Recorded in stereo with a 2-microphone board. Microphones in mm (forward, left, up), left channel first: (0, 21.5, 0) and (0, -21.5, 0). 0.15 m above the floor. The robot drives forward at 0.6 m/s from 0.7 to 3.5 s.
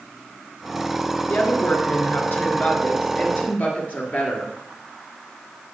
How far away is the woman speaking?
About 2.5 m.